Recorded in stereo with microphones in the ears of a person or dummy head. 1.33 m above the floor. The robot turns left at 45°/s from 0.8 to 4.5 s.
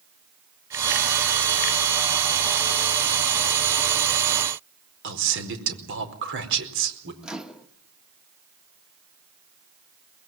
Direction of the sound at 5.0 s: 80° right.